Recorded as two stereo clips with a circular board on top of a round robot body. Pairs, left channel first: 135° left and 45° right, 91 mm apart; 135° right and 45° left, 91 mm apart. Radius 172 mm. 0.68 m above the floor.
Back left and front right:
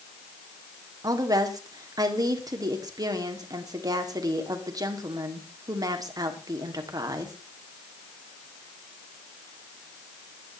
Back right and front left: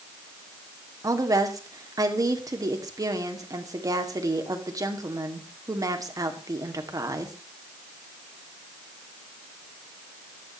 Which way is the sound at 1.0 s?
5° right.